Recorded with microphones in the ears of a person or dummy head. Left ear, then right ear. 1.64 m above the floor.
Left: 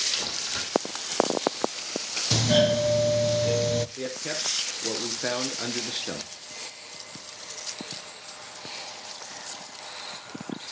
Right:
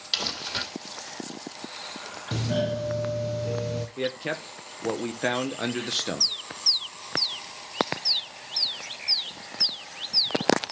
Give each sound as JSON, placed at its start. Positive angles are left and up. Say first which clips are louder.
{"t": 0.1, "sound": "crumpling", "louder": "right 1 dB", "side_deg": -20, "distance_m": 2.5}
{"t": 2.3, "sound": "a doorbell", "louder": "left 7 dB", "side_deg": 50, "distance_m": 0.6}
{"t": 4.0, "sound": "a man speaking", "louder": "right 1 dB", "side_deg": -30, "distance_m": 0.9}